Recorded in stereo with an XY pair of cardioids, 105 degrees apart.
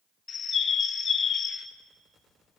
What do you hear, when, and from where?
0.3 s a bird: 50° left, 1.5 m